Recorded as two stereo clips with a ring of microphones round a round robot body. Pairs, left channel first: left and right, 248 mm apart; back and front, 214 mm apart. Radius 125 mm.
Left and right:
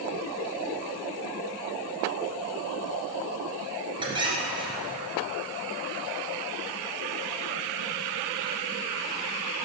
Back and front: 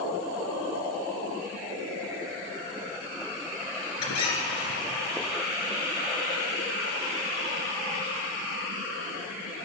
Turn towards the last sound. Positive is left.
turn(degrees=-160)